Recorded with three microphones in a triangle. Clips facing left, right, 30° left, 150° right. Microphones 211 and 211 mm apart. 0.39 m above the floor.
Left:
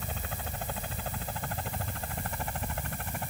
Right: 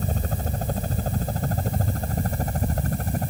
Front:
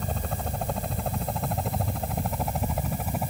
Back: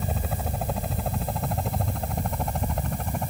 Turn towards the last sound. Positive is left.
turn(degrees=-55)